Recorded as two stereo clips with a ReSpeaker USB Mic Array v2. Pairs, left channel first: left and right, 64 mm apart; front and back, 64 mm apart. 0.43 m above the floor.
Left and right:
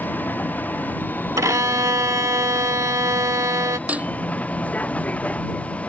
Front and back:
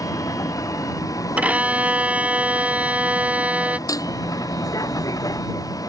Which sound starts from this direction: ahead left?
A vehicle, at 0.0 s.